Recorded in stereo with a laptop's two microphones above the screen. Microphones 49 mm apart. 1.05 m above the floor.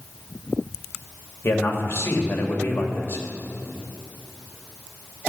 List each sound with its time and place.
1.4 s a man speaking: 50° left (ahead or behind), 2.5 m